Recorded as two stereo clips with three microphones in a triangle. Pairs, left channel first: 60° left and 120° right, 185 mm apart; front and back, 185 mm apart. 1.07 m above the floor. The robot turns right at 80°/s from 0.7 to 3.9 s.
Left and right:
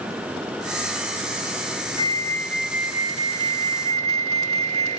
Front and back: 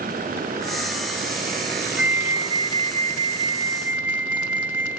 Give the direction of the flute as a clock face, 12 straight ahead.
9 o'clock.